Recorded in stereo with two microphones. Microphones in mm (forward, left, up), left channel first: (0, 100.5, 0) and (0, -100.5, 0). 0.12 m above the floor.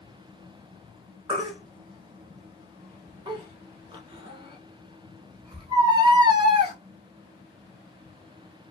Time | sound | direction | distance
1.3 | a baby crying | 25° right (ahead or behind) | 0.7 m